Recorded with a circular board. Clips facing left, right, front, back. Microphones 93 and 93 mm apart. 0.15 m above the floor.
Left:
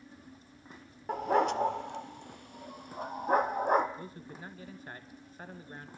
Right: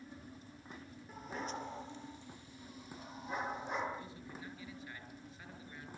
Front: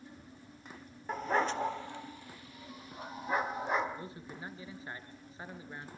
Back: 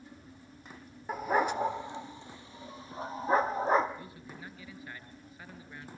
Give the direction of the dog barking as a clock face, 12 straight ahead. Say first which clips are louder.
Left 16 dB, back 2 dB; 9 o'clock.